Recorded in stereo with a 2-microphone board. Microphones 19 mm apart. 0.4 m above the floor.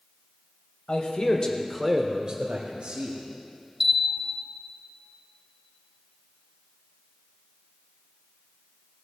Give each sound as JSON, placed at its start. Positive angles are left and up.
{"t": 0.9, "sound": "a man speaking", "side_deg": 55, "distance_m": 1.6}
{"t": 3.8, "sound": "a bell", "side_deg": -15, "distance_m": 1.0}